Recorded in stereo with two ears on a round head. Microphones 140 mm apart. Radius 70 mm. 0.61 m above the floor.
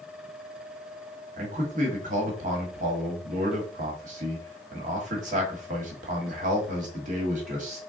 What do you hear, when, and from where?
1.4 s a man speaking: 50° right (ahead or behind), 1.4 m